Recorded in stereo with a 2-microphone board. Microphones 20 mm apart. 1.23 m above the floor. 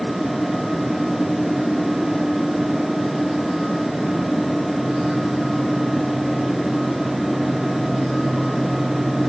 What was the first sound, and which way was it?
Only background noise.